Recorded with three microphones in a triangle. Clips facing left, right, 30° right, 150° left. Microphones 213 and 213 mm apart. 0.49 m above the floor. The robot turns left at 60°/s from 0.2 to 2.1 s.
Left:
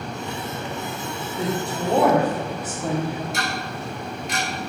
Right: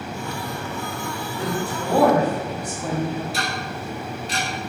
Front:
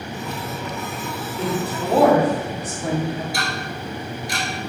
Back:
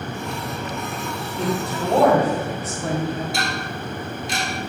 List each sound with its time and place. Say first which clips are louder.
1.4 s a woman speaking: left 1 dB, even; 60° left, 0.8 m; by 3.2 s 15° left, 0.8 m
3.3 s ticking: even, back 1 dB; 145° right, 0.6 m